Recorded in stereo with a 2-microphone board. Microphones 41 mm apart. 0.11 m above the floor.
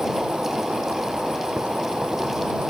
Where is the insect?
15° right (ahead or behind).